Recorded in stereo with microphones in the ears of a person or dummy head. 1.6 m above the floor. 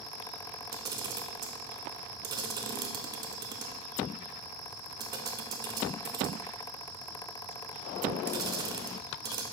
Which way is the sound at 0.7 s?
25° right (ahead or behind).